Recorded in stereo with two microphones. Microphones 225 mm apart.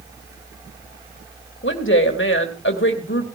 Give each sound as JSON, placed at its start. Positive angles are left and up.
{"t": 1.6, "sound": "a woman speaking", "side_deg": 55, "distance_m": 2.5}